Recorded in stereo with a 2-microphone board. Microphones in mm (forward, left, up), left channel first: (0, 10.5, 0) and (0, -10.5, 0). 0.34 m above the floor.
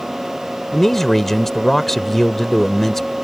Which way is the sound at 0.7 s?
15° left (ahead or behind).